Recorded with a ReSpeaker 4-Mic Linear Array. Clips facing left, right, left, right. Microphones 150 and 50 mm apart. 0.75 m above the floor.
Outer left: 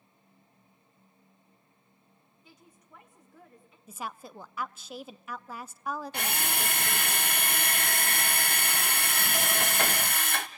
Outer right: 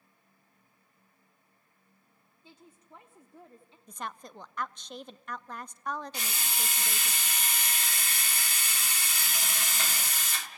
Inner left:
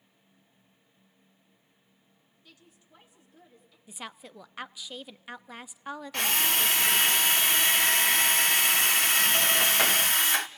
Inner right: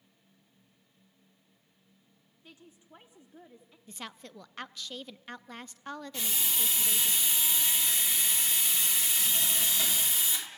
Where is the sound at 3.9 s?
5° left (ahead or behind), 0.5 m.